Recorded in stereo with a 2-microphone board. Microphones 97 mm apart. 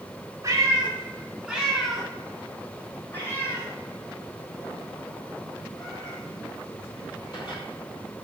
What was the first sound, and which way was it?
A cat meowing, 35° right (ahead or behind).